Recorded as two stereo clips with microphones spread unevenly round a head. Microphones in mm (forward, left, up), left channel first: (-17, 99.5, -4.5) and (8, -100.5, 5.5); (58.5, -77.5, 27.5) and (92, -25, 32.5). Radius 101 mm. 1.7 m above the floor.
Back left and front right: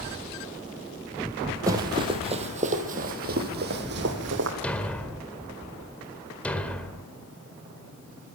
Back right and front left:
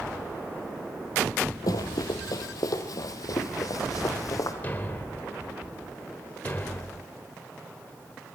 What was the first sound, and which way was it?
Running footsteps, 150° right.